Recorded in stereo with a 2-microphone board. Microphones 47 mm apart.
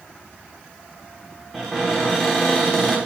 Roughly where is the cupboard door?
Centre.